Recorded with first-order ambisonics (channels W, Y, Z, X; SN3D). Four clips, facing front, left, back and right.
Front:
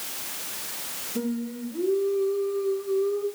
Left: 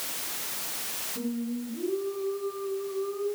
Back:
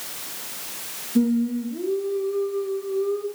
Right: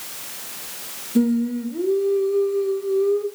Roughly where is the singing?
Right.